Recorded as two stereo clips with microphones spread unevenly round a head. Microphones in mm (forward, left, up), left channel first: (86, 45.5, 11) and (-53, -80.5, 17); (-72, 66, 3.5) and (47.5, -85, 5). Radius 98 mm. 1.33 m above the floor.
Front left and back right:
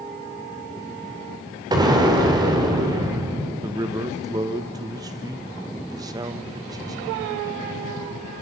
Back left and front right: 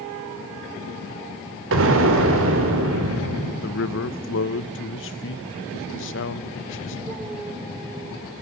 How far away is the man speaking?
About 0.9 m.